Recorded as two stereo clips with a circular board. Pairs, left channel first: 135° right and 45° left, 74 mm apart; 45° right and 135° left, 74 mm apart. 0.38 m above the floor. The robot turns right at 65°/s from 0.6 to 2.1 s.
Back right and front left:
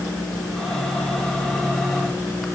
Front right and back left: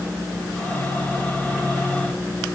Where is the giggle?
No giggle in this recording.